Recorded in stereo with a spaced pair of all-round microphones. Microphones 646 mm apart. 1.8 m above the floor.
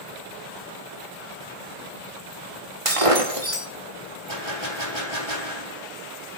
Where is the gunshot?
45° right (ahead or behind), 3.5 m.